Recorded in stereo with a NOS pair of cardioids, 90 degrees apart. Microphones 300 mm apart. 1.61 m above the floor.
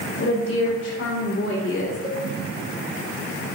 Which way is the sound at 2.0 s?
20° left.